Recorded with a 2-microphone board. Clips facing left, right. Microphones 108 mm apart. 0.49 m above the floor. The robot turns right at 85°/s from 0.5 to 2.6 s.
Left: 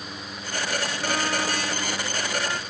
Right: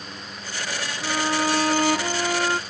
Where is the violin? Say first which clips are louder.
Right 5 dB; straight behind; by 2.6 s 45° right.